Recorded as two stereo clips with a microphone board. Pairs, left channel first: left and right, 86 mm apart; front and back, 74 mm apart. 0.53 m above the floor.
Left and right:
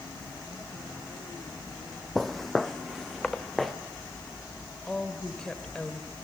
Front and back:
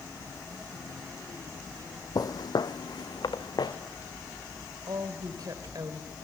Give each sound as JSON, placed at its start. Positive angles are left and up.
{"t": 2.1, "sound": "footsteps", "azimuth_deg": 5, "distance_m": 1.0}
{"t": 4.9, "sound": "a woman speaking", "azimuth_deg": 175, "distance_m": 2.5}